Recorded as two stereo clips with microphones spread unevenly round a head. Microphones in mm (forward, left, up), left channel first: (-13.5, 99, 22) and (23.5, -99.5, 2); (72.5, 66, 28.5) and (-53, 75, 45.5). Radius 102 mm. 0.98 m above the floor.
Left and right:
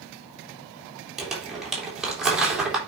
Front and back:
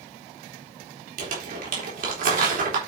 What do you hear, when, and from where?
1.2 s crumpling: 165° right, 3.5 m